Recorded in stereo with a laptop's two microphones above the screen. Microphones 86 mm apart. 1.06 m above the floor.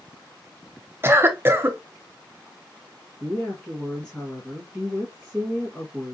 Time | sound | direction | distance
1.0 | a cough | 25° right (ahead or behind) | 0.7 m
3.2 | a woman speaking | 25° left (ahead or behind) | 1.5 m